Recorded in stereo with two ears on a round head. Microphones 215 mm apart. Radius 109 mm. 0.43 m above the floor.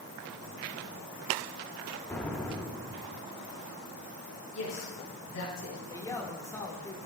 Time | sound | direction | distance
2.1 | an explosion | 5° left (ahead or behind) | 0.6 m
4.5 | a woman speaking | 70° left (ahead or behind) | 3 m
5.9 | a man speaking | 15° left (ahead or behind) | 0.9 m